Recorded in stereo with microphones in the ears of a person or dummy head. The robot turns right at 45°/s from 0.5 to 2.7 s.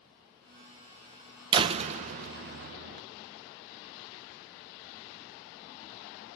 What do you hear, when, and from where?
1.5 s a door slam: 140° right, 0.6 m; by 3.0 s 90° right, 0.6 m